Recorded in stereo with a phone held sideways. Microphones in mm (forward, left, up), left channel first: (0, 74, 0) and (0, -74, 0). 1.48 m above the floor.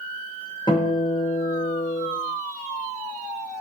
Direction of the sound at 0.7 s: 30° left (ahead or behind).